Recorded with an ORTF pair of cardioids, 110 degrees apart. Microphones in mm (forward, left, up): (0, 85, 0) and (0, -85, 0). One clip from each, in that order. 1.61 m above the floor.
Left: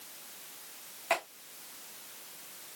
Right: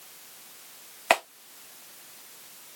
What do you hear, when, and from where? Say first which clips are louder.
1.1 s a clap: right 8 dB; 70° right, 1.9 m